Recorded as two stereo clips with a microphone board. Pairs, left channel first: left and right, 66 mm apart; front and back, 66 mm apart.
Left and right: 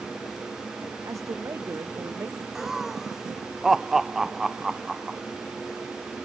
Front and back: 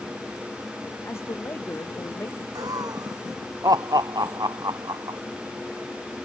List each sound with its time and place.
1.1 s a woman speaking: 50° right; by 2.5 s 45° right
2.5 s laughter: 175° right